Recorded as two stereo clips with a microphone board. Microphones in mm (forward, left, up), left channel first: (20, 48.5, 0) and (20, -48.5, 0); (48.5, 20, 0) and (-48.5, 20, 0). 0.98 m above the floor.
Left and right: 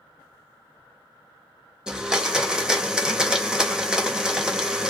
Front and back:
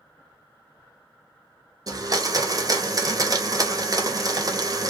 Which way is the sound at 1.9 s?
170° right.